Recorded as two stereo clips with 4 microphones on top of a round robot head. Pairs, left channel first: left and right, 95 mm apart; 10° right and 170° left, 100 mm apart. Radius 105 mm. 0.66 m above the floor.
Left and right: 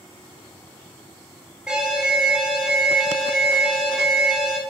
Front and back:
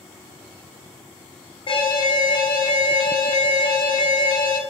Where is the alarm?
10° right, 0.8 m.